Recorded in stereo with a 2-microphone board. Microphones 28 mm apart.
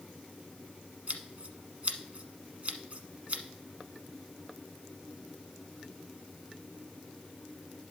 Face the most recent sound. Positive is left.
turn(degrees=-50)  # may be behind; listen again after turning